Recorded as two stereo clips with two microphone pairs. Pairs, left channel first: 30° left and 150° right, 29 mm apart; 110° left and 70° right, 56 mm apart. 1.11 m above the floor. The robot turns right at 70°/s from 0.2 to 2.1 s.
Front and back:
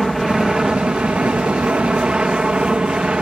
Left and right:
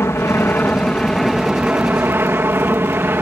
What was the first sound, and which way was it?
An aircraft, 125° left.